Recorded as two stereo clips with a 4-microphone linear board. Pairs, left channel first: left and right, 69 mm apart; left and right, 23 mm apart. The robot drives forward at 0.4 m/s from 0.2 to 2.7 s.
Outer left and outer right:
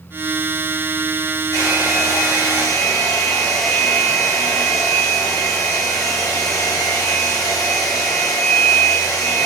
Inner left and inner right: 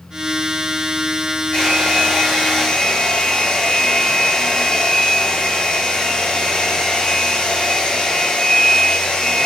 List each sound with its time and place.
1.5 s a hair dryer: 45° left (ahead or behind), 1.7 m; by 9.4 s 50° left (ahead or behind), 1.6 m